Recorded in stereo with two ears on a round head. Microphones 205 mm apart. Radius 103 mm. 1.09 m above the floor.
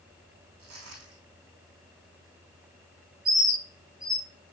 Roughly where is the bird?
Right.